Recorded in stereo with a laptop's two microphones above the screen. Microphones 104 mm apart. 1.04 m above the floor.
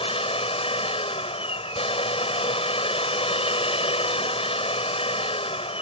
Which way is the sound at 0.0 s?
80° left.